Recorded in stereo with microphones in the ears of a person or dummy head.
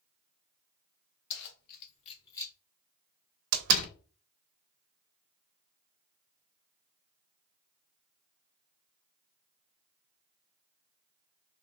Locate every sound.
1.3 s keys jangling: 70° left (ahead or behind), 0.9 m; by 2.5 s 10° left (ahead or behind), 0.8 m
3.5 s a door slam: 60° right (ahead or behind), 0.6 m